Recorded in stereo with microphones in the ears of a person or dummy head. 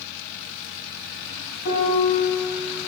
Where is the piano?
55° left (ahead or behind), 1.6 m.